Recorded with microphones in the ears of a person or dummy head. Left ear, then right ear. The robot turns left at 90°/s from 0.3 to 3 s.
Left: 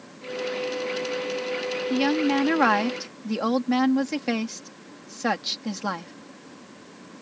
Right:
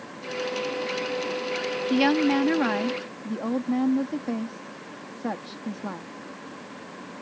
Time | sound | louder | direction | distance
1.9 | a woman speaking | right 2 dB | 155° right | ?